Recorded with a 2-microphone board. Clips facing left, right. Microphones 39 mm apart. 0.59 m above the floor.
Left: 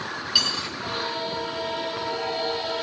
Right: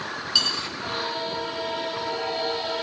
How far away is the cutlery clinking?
About 4.5 m.